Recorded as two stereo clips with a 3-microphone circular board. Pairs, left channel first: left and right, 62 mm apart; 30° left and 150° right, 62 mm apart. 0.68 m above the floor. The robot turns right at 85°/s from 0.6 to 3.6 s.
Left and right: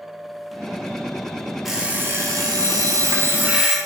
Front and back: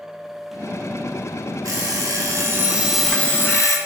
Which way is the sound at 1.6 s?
175° right.